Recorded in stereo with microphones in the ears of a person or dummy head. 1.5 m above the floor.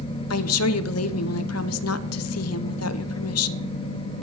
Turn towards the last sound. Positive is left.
turn(degrees=85)